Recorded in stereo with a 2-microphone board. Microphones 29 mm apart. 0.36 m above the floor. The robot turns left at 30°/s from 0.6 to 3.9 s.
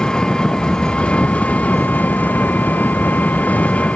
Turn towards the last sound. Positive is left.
turn(degrees=50)